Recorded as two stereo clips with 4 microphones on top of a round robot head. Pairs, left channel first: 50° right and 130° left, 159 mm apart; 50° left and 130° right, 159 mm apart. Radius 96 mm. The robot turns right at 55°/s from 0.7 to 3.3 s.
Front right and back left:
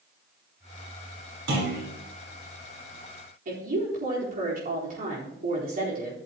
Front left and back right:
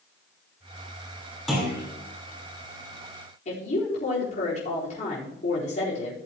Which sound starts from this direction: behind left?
A clunk, at 1.5 s.